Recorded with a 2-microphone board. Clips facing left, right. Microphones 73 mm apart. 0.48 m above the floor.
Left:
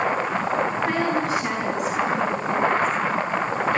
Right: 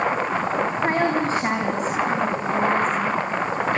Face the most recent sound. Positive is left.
turn(degrees=-40)  # may be behind; listen again after turning